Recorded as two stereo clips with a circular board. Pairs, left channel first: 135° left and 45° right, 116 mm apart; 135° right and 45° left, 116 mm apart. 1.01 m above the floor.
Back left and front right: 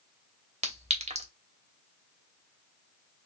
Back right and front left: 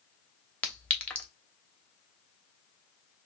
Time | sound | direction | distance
0.6 | a clink | 55° right | 0.9 m